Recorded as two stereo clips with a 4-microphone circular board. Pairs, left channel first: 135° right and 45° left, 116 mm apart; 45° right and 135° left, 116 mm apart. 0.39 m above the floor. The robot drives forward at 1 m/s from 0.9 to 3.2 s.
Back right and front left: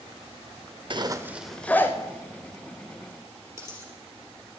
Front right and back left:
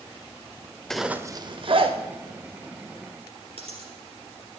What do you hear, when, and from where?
0.9 s a zipper: 40° left, 0.6 m; by 1.9 s 160° left, 0.9 m
3.6 s a dropped coin: 115° left, 3.5 m